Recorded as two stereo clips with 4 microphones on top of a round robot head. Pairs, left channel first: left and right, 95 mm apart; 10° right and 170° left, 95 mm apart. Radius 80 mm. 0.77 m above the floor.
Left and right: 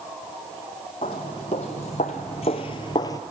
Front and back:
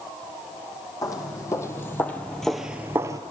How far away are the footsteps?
About 2.0 m.